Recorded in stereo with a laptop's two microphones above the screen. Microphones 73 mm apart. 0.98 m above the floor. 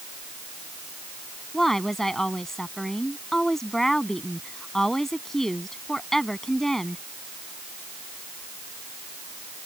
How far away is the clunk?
I don't hear a clunk.